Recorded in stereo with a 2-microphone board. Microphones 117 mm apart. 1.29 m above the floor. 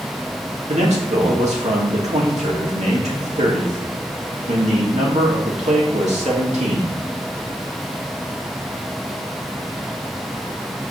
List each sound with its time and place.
0.7 s a man speaking: 75° right (ahead or behind), 2.5 m